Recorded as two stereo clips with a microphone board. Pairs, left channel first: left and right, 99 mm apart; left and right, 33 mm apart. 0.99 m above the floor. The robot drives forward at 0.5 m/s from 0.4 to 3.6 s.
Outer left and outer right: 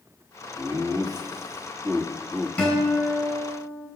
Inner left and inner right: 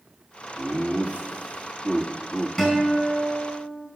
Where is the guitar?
10° left (ahead or behind), 5.5 m.